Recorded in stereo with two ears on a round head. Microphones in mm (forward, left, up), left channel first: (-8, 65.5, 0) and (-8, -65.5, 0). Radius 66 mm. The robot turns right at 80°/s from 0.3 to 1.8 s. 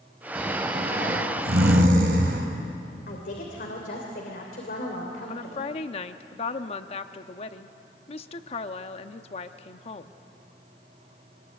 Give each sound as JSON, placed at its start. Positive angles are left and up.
{"t": 0.3, "sound": "snoring", "azimuth_deg": 180, "distance_m": 4.5}
{"t": 3.1, "sound": "a woman speaking", "side_deg": 65, "distance_m": 3.0}
{"t": 5.3, "sound": "a woman speaking", "side_deg": 40, "distance_m": 0.9}